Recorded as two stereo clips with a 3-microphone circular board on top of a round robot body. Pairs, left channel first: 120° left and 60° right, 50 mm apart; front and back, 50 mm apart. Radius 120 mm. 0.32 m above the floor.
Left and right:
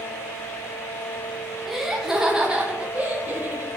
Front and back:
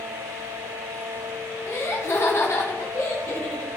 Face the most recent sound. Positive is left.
turn(degrees=-10)